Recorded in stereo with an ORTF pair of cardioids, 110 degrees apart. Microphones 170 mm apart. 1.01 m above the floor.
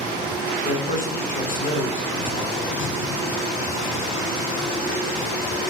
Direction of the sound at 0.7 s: 55° left.